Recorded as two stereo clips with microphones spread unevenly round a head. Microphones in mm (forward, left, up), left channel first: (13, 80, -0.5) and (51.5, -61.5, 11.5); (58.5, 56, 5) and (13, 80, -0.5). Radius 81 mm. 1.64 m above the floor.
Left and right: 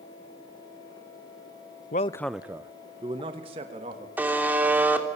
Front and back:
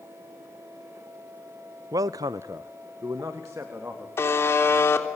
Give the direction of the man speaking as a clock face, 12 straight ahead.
7 o'clock.